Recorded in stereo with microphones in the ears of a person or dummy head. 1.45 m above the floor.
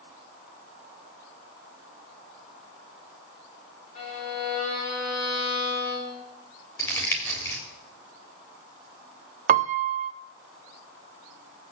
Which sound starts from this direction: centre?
Crumpling, at 6.8 s.